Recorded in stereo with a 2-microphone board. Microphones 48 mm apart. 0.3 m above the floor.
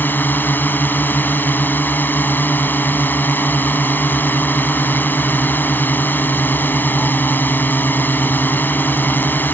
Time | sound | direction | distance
0.0 | a drone | 45° left (ahead or behind) | ?